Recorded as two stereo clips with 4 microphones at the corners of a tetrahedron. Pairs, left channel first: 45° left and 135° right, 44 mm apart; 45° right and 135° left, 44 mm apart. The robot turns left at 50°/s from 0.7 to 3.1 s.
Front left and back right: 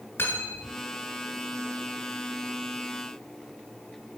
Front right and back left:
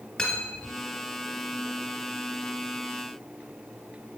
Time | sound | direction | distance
0.2 | cutlery clinking | 25° left | 1.9 m